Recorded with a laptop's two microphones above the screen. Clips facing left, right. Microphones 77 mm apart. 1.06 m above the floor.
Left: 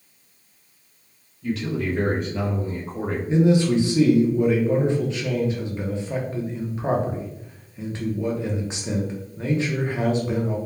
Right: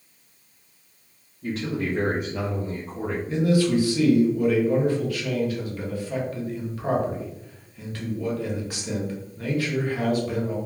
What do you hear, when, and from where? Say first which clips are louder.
1.4 s a man speaking: left 2 dB; 40° right (ahead or behind), 0.8 m; by 3.2 s 40° left (ahead or behind), 0.6 m
3.3 s a man speaking: left 3 dB; 20° left (ahead or behind), 0.5 m